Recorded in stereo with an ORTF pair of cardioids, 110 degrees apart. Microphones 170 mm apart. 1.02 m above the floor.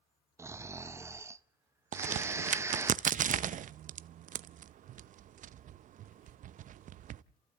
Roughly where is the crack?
Ahead right.